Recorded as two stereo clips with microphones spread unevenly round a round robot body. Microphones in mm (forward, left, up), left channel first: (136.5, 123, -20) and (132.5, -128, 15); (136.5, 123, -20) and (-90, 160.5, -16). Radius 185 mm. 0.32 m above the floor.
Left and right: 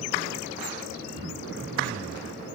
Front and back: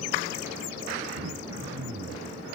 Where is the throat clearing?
155° right, 1.5 m.